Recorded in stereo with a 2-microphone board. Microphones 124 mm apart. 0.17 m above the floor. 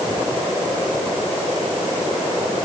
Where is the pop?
I don't hear a pop.